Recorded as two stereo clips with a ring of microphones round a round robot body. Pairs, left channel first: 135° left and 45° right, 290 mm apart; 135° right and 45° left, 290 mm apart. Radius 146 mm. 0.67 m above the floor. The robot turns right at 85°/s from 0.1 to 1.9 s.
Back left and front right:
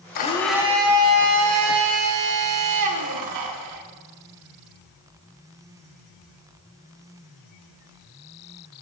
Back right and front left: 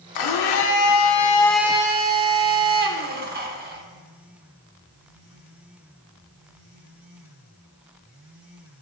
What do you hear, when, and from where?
0.1 s a blender: 165° right, 0.8 m; by 3.8 s 15° right, 0.8 m